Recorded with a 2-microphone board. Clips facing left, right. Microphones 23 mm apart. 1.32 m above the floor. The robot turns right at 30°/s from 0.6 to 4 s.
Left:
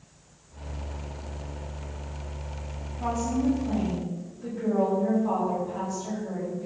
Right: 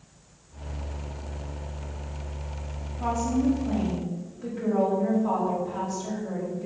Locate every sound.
3.0 s a woman speaking: 170° right, 3.5 m; by 6.7 s 140° right, 3.5 m